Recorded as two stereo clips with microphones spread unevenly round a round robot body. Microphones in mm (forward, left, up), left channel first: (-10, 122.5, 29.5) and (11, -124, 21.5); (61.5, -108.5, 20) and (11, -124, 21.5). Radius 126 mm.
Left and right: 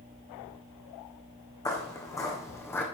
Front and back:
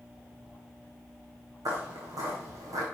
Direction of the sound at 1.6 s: 170° left.